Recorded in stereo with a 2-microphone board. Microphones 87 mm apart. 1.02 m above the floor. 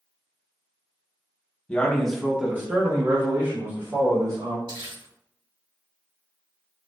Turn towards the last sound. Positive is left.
turn(degrees=-75)  # may be behind; listen again after turning